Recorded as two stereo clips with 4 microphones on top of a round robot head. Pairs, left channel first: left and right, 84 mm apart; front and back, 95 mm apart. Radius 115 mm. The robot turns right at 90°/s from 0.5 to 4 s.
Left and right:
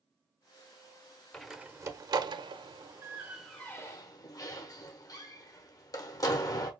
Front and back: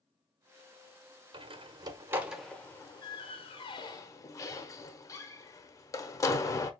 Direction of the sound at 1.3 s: 170° left.